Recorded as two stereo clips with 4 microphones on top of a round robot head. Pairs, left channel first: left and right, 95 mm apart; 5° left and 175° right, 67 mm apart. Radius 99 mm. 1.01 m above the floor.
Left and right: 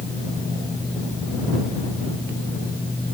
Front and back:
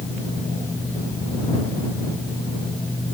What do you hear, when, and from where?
Only background noise.